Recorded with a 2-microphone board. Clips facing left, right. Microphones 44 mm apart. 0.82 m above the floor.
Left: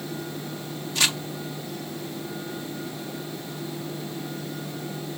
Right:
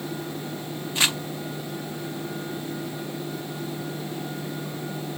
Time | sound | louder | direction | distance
0.9 | crumpling | right 1 dB | 20° right (ahead or behind) | 0.9 m